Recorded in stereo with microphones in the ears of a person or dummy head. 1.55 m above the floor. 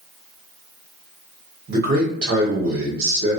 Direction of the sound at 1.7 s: 50° right (ahead or behind).